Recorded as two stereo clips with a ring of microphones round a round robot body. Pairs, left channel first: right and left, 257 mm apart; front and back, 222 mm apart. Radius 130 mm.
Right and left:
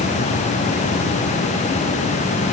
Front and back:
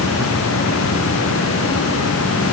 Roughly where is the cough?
I don't hear a cough.